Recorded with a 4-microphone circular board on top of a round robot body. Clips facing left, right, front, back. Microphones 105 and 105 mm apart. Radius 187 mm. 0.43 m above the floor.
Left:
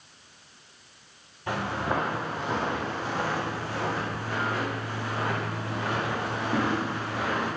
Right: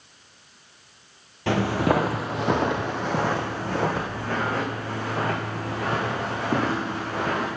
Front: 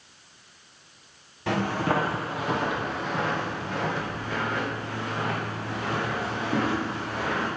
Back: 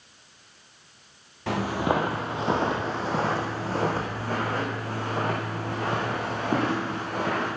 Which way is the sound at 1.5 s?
90° right.